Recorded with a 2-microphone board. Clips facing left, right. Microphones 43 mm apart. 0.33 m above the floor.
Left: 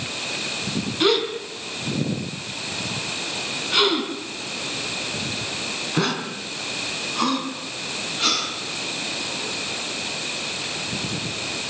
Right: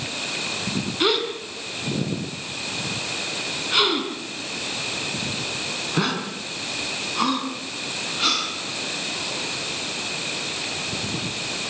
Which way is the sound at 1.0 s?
5° right (ahead or behind).